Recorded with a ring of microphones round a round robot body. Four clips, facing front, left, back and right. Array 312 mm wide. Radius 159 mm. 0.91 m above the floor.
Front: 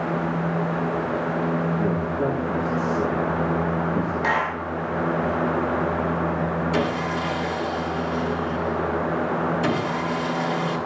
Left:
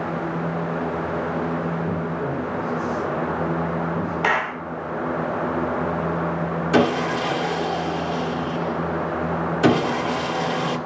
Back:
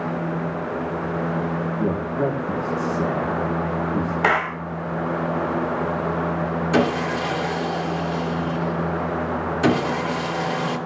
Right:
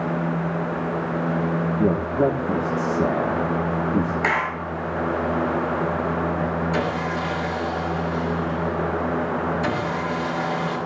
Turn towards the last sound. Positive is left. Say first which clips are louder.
# left 5 dB, back 3 dB
turn(degrees=115)